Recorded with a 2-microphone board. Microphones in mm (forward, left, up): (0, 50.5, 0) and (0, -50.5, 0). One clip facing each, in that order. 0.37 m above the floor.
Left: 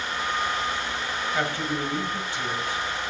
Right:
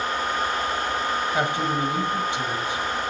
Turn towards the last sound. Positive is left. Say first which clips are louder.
# right 2 dB
turn(degrees=-20)  # may be behind; listen again after turning